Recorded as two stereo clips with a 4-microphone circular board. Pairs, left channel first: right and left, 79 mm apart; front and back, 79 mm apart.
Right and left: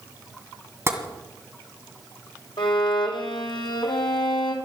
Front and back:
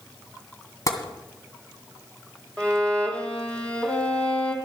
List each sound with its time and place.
0.9 s tapping: 40° left, 2 m
2.6 s a violin: 75° right, 2.5 m